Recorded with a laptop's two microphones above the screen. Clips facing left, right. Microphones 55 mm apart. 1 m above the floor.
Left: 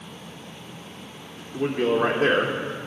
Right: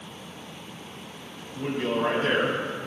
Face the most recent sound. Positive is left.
turn(degrees=80)